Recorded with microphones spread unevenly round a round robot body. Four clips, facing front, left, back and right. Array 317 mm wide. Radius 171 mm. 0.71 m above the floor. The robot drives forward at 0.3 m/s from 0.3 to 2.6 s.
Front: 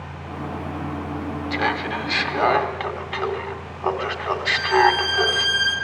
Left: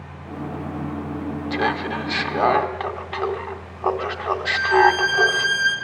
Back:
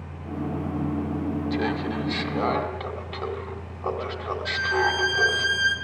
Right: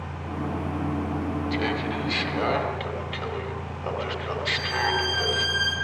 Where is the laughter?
50° left, 2.5 m; by 5.5 s 60° left, 2.5 m.